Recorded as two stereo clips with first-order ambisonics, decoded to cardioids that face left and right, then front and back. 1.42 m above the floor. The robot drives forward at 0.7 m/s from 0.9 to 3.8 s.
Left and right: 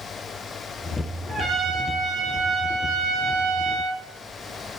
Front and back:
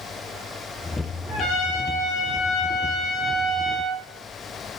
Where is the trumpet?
20° right, 1.7 m; by 4.0 s 110° right, 0.7 m.